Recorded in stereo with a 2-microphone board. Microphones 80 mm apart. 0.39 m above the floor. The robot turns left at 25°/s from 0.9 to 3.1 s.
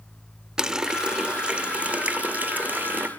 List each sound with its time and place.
0.6 s a running tap: 10° right (ahead or behind), 0.6 m; by 3.1 s 20° right (ahead or behind), 0.6 m